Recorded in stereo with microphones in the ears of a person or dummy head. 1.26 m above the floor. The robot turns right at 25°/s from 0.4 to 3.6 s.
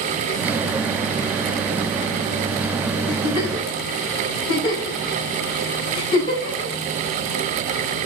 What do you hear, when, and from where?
3.1 s a giggle: 40° left (ahead or behind), 4 m; by 6.8 s 25° left (ahead or behind), 4 m